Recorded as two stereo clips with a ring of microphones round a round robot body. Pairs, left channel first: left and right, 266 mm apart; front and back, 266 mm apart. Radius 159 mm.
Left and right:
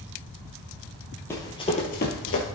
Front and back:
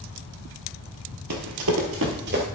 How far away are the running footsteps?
About 1.1 m.